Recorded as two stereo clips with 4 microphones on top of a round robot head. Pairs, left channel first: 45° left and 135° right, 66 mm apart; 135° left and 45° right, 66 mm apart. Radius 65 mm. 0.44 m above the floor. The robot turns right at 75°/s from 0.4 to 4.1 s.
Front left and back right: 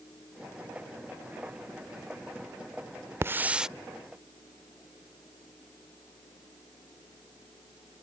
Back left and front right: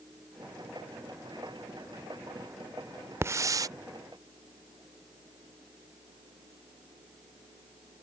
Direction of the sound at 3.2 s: 90° right.